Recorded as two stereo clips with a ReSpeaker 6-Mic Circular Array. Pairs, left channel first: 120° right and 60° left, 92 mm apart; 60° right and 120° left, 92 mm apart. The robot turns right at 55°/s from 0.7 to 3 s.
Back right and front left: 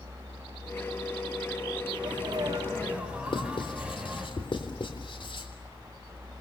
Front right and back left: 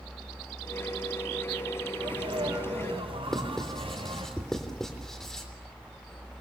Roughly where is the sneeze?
Left.